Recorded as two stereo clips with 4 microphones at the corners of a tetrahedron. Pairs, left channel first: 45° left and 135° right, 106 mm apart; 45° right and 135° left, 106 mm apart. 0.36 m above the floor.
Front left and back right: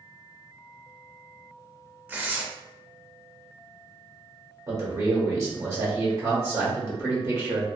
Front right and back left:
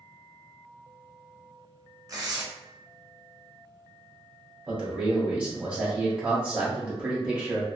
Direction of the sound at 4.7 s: 160° right.